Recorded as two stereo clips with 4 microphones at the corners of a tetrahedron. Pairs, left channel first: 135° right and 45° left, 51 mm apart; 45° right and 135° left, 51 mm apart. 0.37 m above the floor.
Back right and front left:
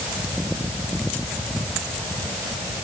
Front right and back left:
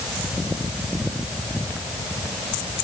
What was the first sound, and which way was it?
Only background noise.